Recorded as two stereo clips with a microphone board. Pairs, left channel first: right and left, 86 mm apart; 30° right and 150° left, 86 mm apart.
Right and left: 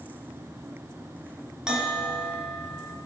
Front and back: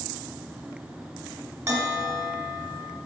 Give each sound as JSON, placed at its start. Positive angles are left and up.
{"t": 1.7, "sound": "a bell", "azimuth_deg": 165, "distance_m": 1.0}